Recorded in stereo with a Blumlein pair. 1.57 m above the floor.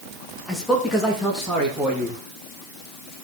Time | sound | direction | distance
0.5 | a man speaking | 5° left | 2 m